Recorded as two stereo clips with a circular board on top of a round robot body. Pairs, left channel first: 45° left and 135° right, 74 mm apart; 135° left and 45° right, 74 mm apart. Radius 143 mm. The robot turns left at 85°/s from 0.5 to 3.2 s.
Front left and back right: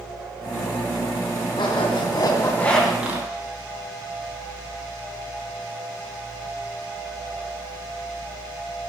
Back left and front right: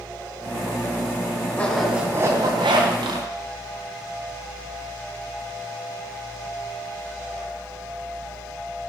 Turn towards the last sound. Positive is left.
turn(degrees=-75)